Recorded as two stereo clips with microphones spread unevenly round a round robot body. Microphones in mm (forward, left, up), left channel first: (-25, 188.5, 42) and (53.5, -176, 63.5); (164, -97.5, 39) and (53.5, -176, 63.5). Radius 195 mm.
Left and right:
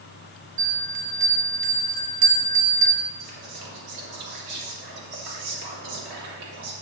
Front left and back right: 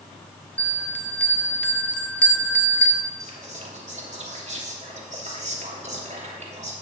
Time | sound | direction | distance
0.6 | a bell | 45° right | 1.3 m
3.2 | whispering | 110° right | 3 m